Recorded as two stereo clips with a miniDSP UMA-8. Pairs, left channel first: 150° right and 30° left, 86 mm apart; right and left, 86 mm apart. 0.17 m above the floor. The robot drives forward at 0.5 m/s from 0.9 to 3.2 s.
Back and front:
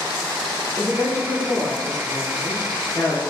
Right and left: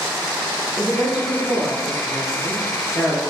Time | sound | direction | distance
0.8 | a woman speaking | 165° left | 1.2 m